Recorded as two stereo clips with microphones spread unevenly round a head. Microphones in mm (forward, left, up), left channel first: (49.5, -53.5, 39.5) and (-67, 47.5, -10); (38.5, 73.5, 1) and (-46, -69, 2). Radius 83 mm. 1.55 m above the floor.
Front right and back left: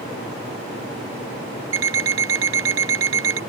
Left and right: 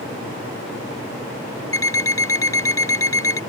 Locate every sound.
1.7 s an alarm clock: 130° left